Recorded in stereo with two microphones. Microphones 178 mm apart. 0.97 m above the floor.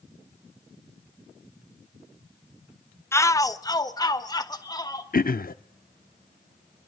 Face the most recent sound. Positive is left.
turn(degrees=55)  # may be behind; listen again after turning